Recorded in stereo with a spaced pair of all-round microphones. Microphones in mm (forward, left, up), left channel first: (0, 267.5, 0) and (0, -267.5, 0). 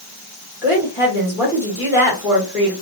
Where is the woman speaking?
5° right (ahead or behind), 1.5 m.